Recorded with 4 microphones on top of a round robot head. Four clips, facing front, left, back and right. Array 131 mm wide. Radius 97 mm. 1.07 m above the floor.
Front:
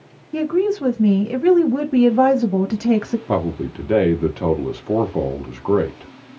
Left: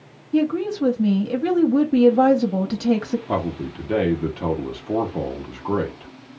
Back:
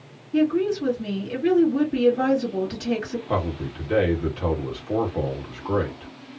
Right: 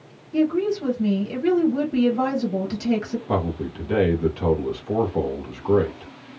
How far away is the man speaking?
About 0.9 m.